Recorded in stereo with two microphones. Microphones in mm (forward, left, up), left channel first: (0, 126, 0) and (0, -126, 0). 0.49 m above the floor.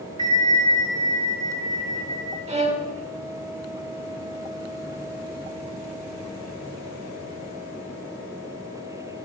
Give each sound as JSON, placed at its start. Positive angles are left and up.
{"t": 0.2, "sound": "a bell", "side_deg": -20, "distance_m": 0.6}
{"t": 2.5, "sound": "a violin", "side_deg": -25, "distance_m": 0.5}